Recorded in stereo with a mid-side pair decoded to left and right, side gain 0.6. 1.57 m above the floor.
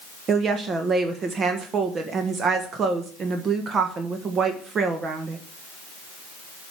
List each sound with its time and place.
0.3 s a woman speaking: 40° right, 1.4 m